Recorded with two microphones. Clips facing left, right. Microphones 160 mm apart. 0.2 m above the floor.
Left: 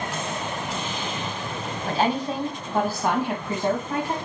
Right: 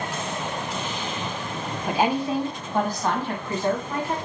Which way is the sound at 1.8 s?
15° right (ahead or behind).